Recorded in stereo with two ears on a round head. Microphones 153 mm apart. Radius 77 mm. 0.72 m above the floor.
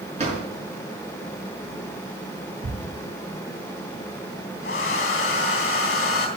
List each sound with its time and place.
0.2 s a drawer: 40° right (ahead or behind), 5.5 m
2.6 s ticking: 55° right (ahead or behind), 6.5 m
4.6 s a hair dryer: 50° left (ahead or behind), 3 m